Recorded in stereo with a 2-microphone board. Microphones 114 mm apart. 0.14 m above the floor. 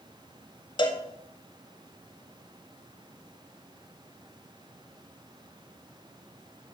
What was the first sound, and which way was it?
A cowbell, 45° left (ahead or behind).